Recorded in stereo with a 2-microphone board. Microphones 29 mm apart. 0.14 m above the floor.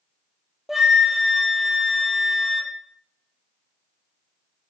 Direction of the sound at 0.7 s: 5° right (ahead or behind).